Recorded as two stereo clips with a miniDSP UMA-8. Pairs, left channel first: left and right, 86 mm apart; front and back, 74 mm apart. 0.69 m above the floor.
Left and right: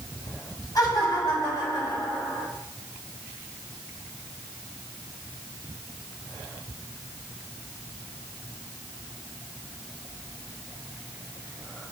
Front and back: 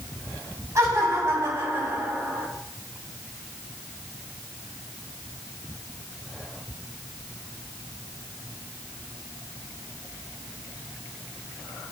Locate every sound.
0.8 s laughter: 135° left, 3.5 m; by 2.5 s 115° left, 3 m